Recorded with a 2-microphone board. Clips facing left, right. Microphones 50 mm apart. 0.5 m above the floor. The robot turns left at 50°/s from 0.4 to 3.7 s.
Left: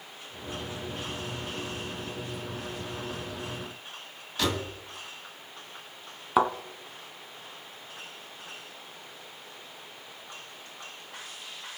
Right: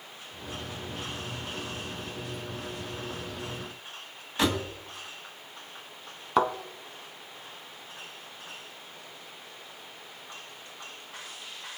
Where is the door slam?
25° right (ahead or behind), 2.5 m.